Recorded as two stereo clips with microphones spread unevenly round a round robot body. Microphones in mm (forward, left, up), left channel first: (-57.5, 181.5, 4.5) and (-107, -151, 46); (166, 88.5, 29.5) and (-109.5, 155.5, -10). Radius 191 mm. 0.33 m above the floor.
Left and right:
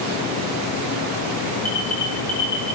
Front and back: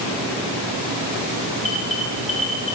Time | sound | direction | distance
1.6 | an alarm | straight ahead | 5.5 m